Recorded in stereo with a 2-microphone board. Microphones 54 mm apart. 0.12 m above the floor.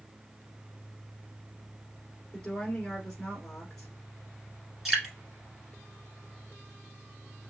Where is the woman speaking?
5° left (ahead or behind), 1.3 m.